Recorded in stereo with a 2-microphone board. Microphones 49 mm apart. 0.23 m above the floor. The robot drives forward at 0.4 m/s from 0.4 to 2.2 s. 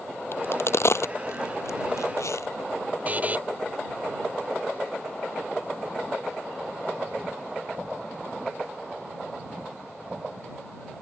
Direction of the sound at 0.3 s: 55° left (ahead or behind).